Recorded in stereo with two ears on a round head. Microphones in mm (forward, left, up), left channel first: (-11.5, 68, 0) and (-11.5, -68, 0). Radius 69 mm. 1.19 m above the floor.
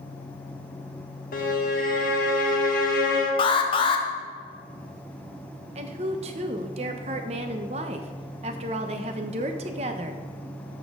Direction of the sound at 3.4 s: 35° left (ahead or behind).